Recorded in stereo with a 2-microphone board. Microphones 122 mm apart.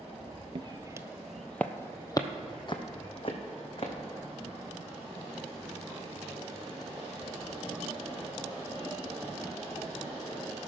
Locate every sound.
0.6 s footsteps: 45° right (ahead or behind), 0.5 m; by 3.9 s 50° left (ahead or behind), 1.6 m